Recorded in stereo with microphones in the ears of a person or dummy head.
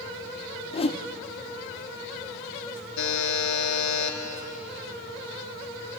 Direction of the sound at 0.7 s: 30° left (ahead or behind).